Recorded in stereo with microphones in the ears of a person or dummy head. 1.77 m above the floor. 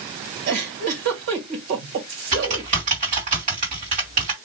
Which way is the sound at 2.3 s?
30° right (ahead or behind).